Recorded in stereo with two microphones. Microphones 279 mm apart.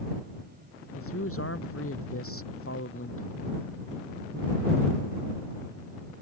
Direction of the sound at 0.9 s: 55° left (ahead or behind).